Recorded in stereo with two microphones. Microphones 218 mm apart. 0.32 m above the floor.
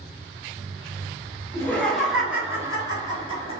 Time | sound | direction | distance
1.5 | laughter | 10° left (ahead or behind) | 1.3 m